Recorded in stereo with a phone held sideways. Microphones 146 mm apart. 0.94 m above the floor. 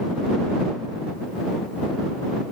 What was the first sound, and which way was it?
Only background noise.